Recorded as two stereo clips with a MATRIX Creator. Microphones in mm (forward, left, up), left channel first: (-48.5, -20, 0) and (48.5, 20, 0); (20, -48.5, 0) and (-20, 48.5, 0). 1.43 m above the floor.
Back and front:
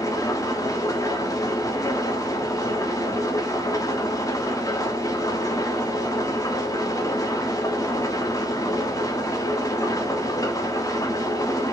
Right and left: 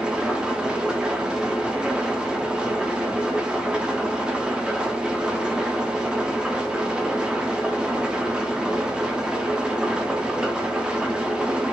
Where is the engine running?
170° right, 1.0 m.